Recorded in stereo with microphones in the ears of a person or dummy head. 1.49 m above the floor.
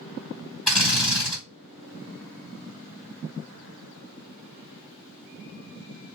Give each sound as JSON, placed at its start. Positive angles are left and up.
{"t": 0.7, "sound": "a drill", "side_deg": 5, "distance_m": 2.0}